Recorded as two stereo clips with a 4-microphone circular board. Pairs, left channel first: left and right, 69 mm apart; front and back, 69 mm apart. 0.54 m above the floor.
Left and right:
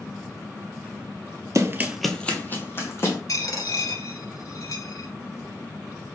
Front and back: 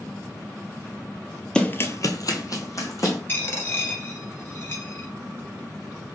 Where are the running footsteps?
75° right, 0.7 m; by 3.2 s 40° left, 2 m.